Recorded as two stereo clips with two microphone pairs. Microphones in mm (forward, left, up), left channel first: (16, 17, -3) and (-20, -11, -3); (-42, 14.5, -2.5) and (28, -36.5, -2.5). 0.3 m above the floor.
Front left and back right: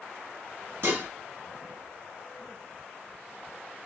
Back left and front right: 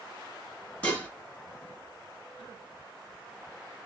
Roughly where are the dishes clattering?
Behind right.